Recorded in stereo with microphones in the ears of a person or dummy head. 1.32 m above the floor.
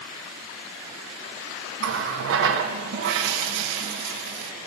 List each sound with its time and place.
1.8 s a running tap: 65° right (ahead or behind), 1.1 m